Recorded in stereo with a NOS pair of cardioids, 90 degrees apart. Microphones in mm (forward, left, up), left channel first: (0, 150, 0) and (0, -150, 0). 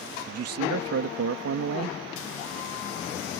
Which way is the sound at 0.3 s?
55° right.